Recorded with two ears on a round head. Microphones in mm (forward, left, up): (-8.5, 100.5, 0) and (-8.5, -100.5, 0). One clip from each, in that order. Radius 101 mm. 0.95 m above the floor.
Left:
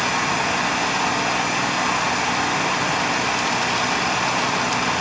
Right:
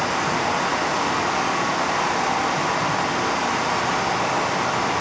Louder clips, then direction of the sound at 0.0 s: Left 1 dB; 65° left (ahead or behind).